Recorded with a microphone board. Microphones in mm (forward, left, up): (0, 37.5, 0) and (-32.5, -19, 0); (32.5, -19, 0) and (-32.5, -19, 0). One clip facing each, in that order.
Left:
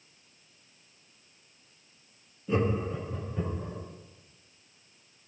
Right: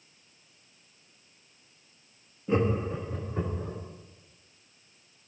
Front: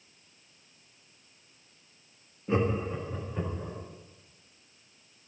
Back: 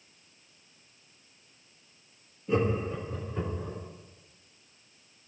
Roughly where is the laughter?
Ahead right.